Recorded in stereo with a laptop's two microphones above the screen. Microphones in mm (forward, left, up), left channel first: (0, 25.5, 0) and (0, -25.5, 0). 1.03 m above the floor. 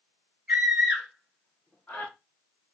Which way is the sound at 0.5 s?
20° right (ahead or behind).